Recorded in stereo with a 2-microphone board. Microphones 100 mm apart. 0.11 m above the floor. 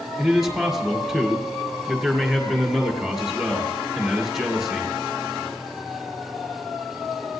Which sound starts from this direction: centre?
A man speaking, at 0.2 s.